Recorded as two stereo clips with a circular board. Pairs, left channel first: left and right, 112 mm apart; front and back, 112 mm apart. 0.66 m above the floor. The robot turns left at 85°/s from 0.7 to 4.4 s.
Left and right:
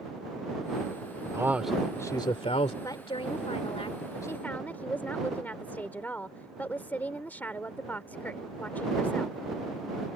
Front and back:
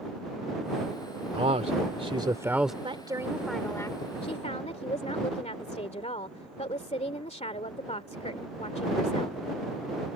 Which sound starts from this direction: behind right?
A man speaking, at 1.3 s.